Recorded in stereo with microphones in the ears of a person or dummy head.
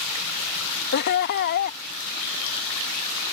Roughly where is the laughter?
Left.